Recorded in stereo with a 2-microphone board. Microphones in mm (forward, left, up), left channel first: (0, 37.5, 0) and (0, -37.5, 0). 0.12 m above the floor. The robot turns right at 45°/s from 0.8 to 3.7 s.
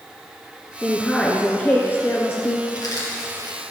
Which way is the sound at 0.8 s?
5° right.